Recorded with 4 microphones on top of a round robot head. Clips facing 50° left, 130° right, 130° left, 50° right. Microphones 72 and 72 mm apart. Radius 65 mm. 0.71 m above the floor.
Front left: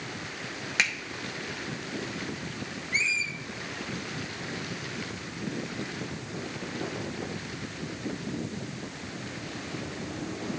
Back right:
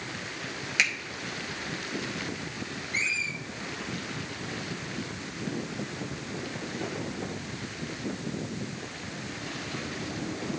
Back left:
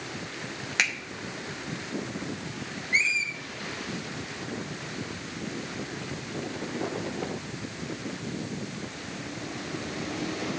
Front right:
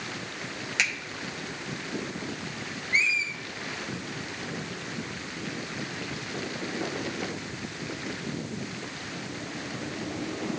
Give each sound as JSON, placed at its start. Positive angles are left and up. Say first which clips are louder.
{"t": 0.8, "sound": "a finger snap", "louder": "even, back left 1 dB", "azimuth_deg": 95, "distance_m": 2.0}
{"t": 2.9, "sound": "a squeak", "louder": "front left 2 dB, even", "azimuth_deg": 65, "distance_m": 2.5}